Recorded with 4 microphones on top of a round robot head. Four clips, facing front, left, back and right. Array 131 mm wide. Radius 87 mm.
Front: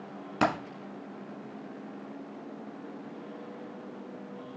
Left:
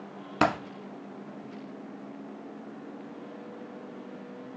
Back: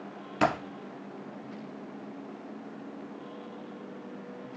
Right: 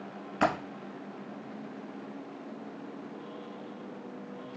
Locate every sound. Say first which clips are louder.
0.4 s a dropped coin: left 2 dB, back 1 dB; 80° left, 0.9 m